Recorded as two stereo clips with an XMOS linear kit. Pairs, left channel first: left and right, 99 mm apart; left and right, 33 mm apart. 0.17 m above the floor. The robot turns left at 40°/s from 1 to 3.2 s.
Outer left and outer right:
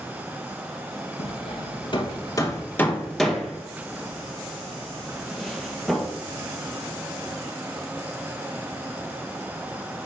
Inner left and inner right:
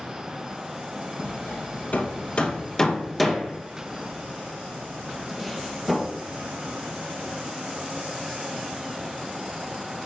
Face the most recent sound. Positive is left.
turn(degrees=5)  # may be behind; listen again after turning